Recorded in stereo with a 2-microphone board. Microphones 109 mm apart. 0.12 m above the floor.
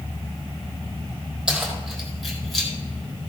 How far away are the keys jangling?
About 3 m.